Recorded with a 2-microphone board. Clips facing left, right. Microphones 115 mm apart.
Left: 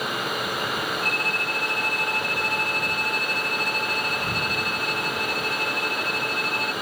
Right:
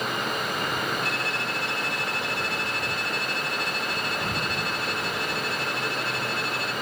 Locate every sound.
1.0 s a violin: 50° left (ahead or behind)